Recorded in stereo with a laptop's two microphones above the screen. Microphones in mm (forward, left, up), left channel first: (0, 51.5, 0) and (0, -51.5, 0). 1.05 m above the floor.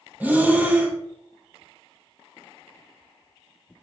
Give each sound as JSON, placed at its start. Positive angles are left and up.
{"t": 0.2, "sound": "breathing", "side_deg": -15, "distance_m": 0.6}